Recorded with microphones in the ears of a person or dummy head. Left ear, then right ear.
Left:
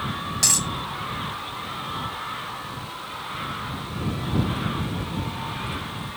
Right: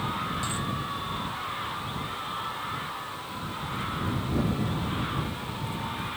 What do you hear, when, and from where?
0.4 s a dropped coin: 65° left (ahead or behind)